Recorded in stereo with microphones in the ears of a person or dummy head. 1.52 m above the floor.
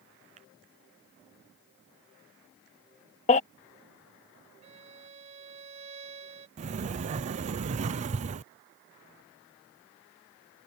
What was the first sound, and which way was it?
A finger snap, 30° right (ahead or behind).